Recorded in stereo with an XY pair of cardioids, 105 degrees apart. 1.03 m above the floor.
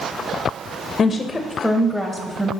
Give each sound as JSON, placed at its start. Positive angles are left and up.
{"t": 1.0, "sound": "a woman speaking", "azimuth_deg": 45, "distance_m": 0.6}